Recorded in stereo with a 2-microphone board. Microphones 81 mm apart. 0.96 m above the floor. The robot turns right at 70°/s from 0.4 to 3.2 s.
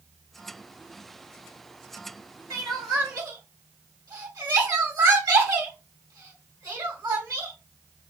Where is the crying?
55° right (ahead or behind), 2.0 m; by 7.5 s 60° right (ahead or behind), 2.0 m.